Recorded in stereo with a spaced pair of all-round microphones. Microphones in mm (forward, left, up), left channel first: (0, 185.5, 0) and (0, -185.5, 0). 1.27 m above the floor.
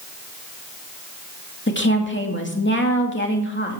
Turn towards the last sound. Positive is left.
turn(degrees=30)  # may be behind; listen again after turning